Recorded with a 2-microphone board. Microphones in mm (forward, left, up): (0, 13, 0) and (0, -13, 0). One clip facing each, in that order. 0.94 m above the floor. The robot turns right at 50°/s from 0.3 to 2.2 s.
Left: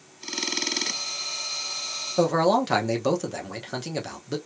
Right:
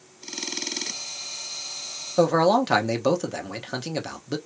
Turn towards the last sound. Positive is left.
turn(degrees=-5)  # may be behind; listen again after turning